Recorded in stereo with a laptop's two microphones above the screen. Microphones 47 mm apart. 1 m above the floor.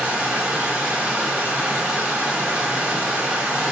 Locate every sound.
0.0 s running water: 25° right (ahead or behind), 2 m